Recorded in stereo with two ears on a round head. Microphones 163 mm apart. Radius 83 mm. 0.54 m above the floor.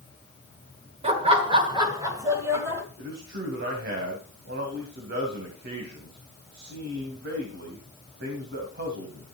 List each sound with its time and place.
1.0 s laughter: 35° right (ahead or behind), 2 m; by 2.8 s 15° right (ahead or behind), 3 m
3.0 s a man speaking: 65° right (ahead or behind), 3 m